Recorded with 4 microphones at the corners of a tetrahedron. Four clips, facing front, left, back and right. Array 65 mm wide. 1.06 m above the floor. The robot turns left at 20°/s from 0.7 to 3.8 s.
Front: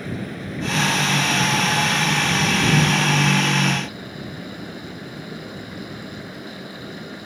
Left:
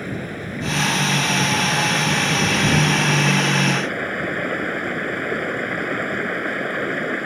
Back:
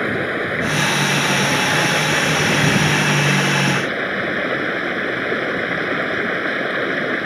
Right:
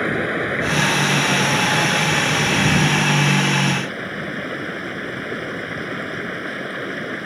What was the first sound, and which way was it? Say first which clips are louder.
Running water: right 8 dB, back 10 dB; 140° right.